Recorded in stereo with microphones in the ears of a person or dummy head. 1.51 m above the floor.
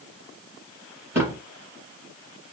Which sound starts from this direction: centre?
A thud, at 1.1 s.